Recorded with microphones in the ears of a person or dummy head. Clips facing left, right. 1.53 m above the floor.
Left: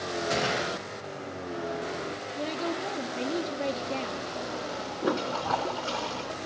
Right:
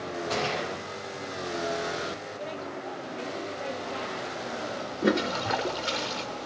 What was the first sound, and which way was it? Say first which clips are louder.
A gunshot: left 1 dB; 20° left (ahead or behind).